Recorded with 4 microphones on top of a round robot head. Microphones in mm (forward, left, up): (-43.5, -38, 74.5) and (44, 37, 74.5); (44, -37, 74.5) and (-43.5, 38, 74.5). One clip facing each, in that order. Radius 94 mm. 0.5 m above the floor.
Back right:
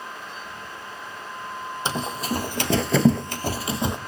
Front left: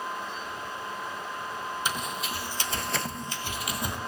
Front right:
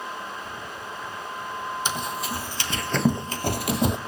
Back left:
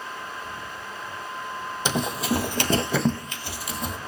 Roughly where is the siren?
I don't hear a siren.